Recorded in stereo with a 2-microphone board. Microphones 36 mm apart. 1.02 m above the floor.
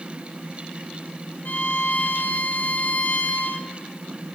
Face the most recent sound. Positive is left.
turn(degrees=55)  # may be behind; listen again after turning